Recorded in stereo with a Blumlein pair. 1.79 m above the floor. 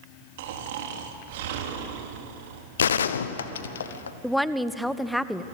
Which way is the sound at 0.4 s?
50° right.